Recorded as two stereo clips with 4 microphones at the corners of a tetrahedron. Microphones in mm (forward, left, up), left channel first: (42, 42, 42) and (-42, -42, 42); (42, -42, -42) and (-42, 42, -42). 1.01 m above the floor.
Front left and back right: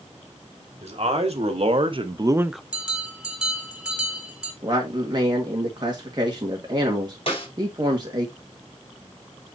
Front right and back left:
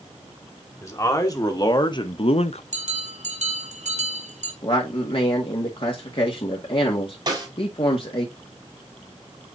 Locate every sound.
0.8 s a man speaking: 110° right, 2.5 m; by 2.6 s 40° right, 0.5 m
2.7 s a bell: 140° left, 2.5 m
4.6 s a man speaking: 85° right, 1.8 m
7.3 s a snare drum: 85° left, 5 m